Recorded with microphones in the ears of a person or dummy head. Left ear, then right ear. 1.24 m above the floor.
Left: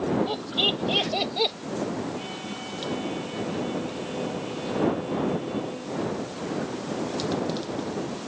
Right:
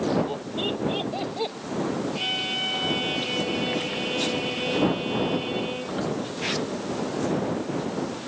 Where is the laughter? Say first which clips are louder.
Left 4 dB; 45° left (ahead or behind); by 1.6 s 35° left (ahead or behind).